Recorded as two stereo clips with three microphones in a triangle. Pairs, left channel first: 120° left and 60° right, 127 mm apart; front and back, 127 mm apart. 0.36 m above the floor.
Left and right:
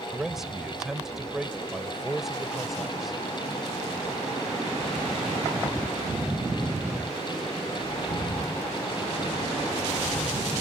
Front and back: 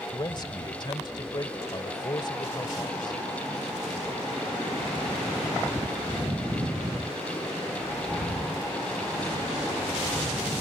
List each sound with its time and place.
0.1 s a man speaking: 25° left